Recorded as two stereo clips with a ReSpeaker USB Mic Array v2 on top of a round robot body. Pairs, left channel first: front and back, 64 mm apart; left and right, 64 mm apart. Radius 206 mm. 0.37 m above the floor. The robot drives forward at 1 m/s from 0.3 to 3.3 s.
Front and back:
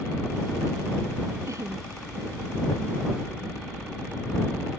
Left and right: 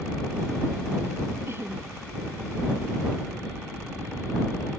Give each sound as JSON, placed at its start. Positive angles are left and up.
{"t": 1.5, "sound": "laughter", "azimuth_deg": -140}